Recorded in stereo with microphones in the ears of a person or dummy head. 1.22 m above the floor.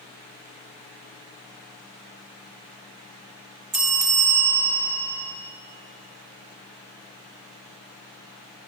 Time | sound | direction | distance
3.7 | a bell | 5° right (ahead or behind) | 1.6 m